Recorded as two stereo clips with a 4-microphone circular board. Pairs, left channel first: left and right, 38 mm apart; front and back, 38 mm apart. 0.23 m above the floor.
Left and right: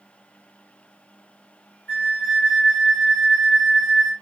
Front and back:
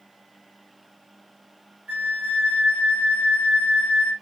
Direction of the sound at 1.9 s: 125° left.